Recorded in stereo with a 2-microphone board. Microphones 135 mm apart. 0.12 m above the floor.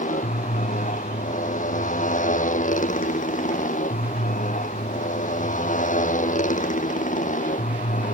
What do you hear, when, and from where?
0.0 s a motorcycle: 85° left